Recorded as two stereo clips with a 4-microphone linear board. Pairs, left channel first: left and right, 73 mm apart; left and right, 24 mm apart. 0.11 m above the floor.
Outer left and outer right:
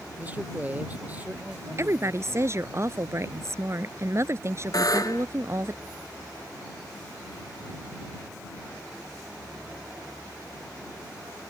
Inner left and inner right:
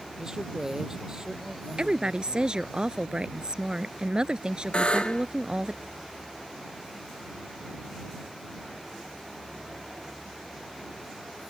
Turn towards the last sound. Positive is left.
turn(degrees=55)  # may be behind; listen again after turning